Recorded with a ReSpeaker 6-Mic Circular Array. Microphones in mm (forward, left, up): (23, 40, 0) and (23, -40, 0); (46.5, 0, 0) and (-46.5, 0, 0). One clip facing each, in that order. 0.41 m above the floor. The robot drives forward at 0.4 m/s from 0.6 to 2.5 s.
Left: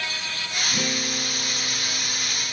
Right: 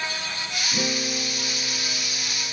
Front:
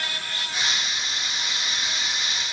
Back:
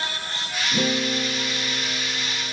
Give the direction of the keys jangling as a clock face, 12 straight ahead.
I don't hear keys jangling.